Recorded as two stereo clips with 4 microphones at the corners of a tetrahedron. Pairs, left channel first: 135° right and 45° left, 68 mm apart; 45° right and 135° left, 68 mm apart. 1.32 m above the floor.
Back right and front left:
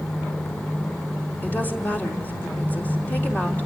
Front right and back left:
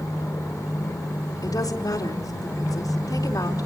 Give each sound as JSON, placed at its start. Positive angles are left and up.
{"t": 1.4, "sound": "a woman speaking", "azimuth_deg": -70, "distance_m": 3.5}